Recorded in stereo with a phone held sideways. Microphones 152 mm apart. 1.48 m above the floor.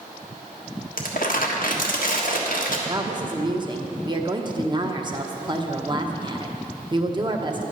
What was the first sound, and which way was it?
Crumpling, 65° left (ahead or behind).